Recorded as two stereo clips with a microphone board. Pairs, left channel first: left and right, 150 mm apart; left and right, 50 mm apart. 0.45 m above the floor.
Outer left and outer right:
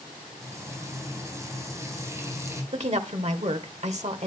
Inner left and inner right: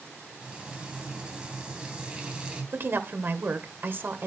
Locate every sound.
0.4 s frying: 20° right (ahead or behind), 2.5 m
2.7 s a woman speaking: 50° right (ahead or behind), 1.3 m